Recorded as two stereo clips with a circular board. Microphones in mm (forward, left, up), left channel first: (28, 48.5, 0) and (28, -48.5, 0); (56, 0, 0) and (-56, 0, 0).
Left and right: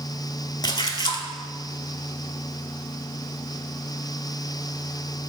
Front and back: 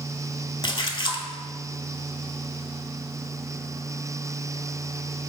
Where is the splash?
45° left, 0.6 m.